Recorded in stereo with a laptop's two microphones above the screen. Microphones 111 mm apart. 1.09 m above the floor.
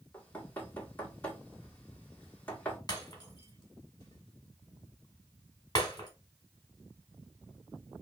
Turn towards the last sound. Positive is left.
turn(degrees=40)  # may be behind; listen again after turning